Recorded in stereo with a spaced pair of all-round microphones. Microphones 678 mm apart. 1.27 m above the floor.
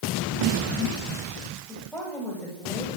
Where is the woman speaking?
Centre (ahead or behind), 8.5 m.